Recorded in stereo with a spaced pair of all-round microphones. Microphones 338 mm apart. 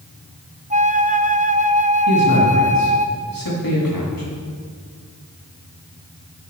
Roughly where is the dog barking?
I don't hear a dog barking.